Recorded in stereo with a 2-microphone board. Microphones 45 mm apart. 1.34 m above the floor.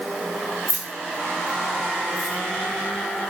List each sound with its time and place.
0.7 s keys jangling: 45° right (ahead or behind), 0.7 m; by 2.3 s 75° left (ahead or behind), 1.6 m